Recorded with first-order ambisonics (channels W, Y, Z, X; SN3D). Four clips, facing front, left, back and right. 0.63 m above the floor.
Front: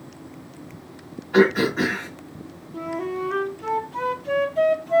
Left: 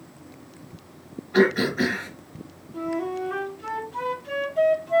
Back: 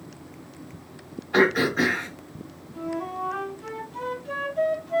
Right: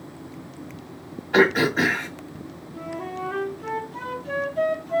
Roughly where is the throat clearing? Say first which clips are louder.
Right 2 dB, front 2 dB; right.